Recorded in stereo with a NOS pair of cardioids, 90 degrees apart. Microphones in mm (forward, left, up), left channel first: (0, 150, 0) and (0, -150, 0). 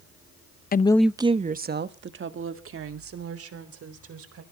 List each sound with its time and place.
0.7 s a woman speaking: 30° left, 0.6 m; by 4.4 s 50° right, 4 m